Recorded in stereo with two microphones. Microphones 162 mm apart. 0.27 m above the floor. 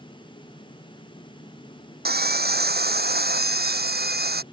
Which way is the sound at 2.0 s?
85° right.